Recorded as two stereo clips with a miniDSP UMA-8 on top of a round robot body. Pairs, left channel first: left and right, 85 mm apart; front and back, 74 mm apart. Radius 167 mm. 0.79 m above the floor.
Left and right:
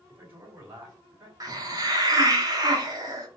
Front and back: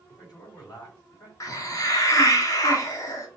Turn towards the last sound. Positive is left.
turn(degrees=-40)